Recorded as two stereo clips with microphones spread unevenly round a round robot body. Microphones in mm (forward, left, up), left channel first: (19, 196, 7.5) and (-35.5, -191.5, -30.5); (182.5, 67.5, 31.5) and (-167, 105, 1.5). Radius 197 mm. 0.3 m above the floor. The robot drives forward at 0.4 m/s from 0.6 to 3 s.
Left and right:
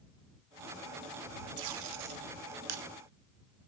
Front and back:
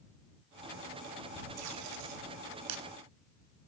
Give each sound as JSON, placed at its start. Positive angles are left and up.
{"t": 1.6, "sound": "tape being pulled", "azimuth_deg": -135, "distance_m": 0.8}